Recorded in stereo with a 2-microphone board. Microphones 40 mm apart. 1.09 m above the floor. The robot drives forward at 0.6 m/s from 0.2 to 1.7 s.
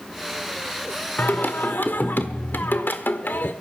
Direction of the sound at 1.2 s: 50° left (ahead or behind).